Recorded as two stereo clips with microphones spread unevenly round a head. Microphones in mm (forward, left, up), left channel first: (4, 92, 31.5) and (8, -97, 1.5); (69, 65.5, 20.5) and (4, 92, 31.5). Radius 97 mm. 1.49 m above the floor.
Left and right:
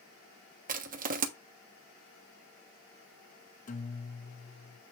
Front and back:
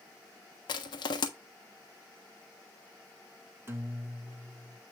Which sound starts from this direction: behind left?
A guitar, at 3.7 s.